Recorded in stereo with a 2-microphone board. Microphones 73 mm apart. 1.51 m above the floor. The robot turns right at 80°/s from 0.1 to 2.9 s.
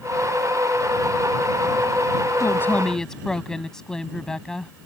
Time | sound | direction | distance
2.4 | a woman speaking | 130° left | ?